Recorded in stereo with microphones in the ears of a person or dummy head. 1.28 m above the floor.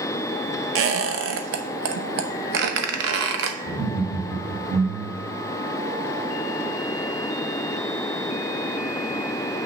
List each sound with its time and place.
0.8 s a squeak: 65° right (ahead or behind), 0.9 m
3.6 s laughter: 75° right (ahead or behind), 2.5 m